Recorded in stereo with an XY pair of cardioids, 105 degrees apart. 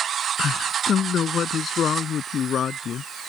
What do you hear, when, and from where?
0.4 s a man speaking: 50° left; by 3.1 s 55° left